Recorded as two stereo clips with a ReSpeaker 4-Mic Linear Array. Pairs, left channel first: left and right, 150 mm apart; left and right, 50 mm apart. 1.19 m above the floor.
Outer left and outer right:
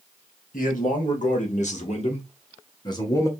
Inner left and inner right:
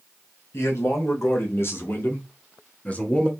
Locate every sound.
0.5 s a man speaking: 70° left (ahead or behind), 1.9 m; by 3.3 s 20° left (ahead or behind), 1.0 m